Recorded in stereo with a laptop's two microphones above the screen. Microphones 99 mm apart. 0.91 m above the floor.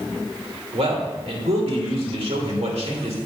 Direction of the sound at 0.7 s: 80° right.